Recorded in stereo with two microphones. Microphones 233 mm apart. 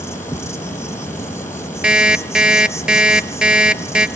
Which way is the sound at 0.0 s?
10° left (ahead or behind).